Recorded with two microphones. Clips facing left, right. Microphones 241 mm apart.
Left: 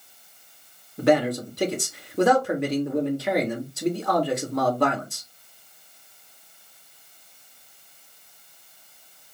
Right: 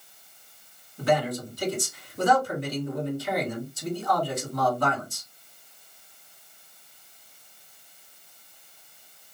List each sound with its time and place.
1.0 s a man speaking: 70° left (ahead or behind), 1.7 m